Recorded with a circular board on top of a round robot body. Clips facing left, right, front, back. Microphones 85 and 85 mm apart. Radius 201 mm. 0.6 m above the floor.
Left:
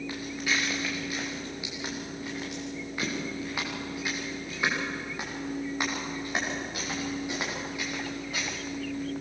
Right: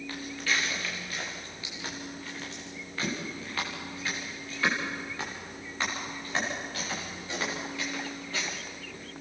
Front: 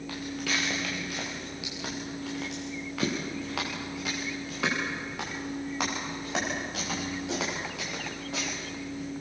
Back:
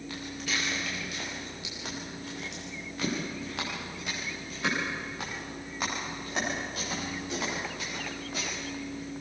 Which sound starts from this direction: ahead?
Footsteps, at 0.1 s.